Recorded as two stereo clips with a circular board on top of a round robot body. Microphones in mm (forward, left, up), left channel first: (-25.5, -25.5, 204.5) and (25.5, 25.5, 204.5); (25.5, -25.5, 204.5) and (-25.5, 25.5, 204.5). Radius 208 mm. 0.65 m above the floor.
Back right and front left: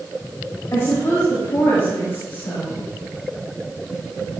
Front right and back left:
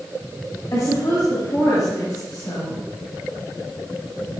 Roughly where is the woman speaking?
Right.